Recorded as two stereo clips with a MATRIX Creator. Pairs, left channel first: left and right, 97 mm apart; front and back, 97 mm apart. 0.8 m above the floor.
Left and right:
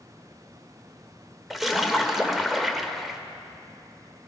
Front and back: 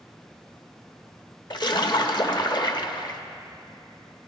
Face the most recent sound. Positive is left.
turn(degrees=0)